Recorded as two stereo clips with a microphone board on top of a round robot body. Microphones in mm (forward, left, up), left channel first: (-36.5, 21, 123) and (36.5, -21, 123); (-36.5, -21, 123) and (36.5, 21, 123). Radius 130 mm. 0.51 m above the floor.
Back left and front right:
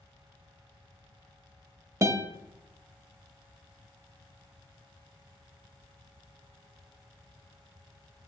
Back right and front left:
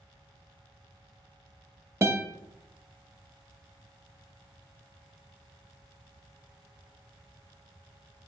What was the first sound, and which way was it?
A guitar, 10° right.